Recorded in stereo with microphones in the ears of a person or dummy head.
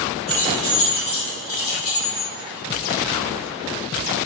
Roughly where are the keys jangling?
Centre.